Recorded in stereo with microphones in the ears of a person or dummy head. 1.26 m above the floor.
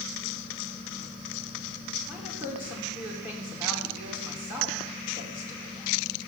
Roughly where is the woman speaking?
Centre.